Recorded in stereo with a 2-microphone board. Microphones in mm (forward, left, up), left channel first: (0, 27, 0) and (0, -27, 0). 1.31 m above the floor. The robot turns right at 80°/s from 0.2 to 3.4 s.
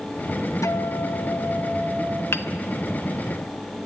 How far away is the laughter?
No laughter in this recording.